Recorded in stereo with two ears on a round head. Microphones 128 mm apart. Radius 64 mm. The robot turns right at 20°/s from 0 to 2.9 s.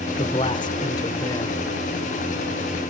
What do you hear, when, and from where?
0.2 s a man speaking: 40° left (ahead or behind), 0.9 m; by 1.6 s 20° left (ahead or behind), 0.9 m